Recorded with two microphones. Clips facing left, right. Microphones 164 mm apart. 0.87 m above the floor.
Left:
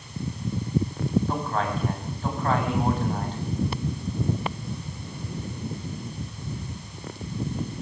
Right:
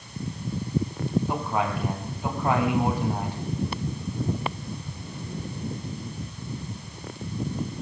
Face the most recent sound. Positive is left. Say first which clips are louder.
# even
turn(degrees=-10)  # may be behind; listen again after turning